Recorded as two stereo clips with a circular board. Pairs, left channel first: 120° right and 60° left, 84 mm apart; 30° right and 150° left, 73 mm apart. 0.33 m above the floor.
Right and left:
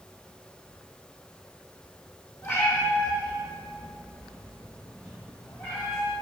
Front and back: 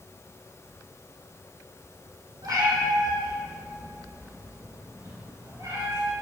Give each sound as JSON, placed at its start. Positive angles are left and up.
{"t": 2.4, "sound": "a cat meowing", "azimuth_deg": 175, "distance_m": 3.5}